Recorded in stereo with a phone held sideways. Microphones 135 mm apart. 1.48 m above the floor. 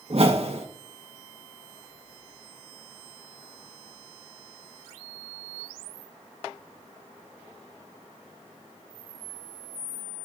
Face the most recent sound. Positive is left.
turn(degrees=-55)  # may be behind; listen again after turning